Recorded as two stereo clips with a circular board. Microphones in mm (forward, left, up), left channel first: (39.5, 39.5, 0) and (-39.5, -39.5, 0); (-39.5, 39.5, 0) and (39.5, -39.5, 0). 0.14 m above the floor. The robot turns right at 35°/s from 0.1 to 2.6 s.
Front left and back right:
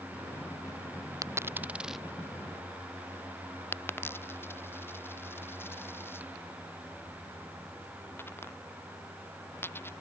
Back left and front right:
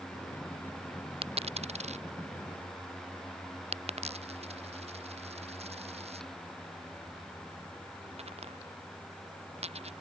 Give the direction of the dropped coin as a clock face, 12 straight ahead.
2 o'clock.